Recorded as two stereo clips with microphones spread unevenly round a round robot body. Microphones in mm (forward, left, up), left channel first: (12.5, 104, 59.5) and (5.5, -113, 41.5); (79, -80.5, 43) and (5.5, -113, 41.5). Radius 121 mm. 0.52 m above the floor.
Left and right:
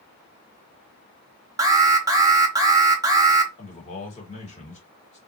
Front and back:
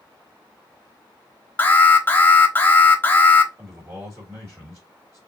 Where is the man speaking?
145° left, 1.5 m.